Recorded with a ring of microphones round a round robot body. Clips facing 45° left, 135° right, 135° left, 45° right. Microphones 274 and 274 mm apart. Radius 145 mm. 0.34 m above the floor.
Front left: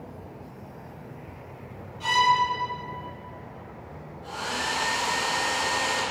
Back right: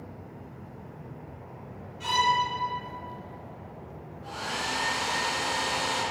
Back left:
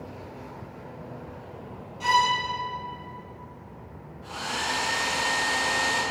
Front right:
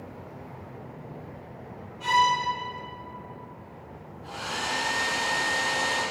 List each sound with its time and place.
2.0 s a violin: 130° left, 1.7 m
4.2 s a hair dryer: 115° left, 1.3 m